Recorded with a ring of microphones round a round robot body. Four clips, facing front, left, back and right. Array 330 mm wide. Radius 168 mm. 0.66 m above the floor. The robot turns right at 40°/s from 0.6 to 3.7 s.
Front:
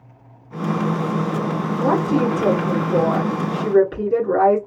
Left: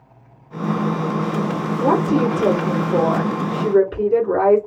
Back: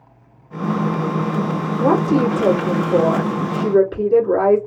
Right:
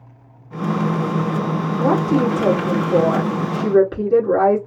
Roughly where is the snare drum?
No snare drum in this recording.